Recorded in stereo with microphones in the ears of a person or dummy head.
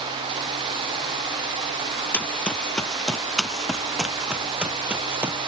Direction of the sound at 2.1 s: 10° left (ahead or behind).